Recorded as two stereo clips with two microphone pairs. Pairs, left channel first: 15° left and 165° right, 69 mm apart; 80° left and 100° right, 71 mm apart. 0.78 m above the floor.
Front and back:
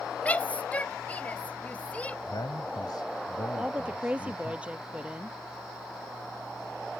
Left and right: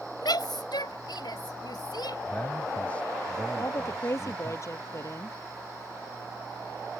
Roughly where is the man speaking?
Ahead.